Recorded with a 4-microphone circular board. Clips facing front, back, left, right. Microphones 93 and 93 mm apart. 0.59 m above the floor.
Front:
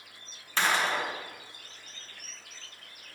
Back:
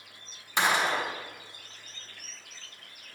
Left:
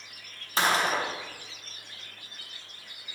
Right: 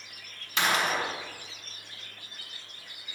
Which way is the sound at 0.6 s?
115° left.